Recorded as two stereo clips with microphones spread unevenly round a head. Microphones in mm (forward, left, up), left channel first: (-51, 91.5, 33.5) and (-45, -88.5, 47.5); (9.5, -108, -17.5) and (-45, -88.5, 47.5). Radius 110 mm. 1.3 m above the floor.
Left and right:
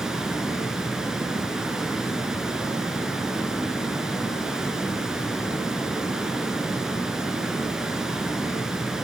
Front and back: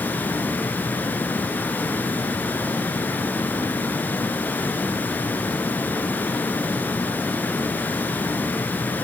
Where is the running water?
165° right, 1.4 m.